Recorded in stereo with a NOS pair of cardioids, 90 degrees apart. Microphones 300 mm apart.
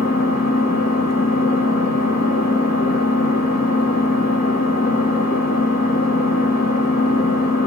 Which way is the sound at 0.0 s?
60° left.